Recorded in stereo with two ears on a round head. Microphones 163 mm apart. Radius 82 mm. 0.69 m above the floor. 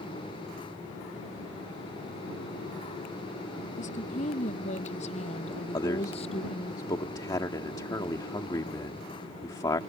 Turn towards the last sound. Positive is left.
turn(degrees=20)  # may be behind; listen again after turning